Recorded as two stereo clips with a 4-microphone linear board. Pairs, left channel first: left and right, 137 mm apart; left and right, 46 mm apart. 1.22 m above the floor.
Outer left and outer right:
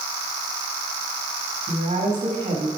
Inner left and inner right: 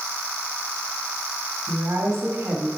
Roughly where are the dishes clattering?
I don't hear dishes clattering.